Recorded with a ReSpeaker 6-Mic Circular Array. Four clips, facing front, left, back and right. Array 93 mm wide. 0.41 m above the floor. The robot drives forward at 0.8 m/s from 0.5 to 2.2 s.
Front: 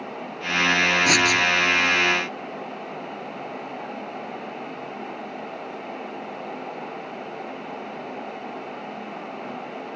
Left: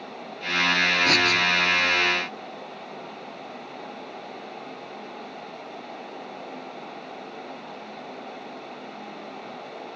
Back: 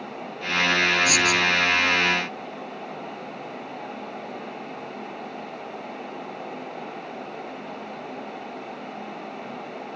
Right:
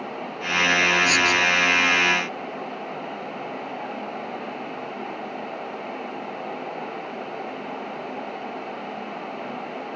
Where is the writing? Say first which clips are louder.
Right 2 dB, front 2 dB; 35° left; by 1.4 s 40° left.